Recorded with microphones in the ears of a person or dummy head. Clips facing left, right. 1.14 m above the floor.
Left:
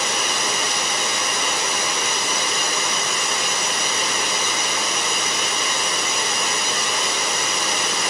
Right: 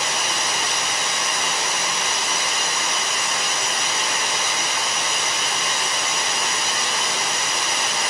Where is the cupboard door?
I don't hear a cupboard door.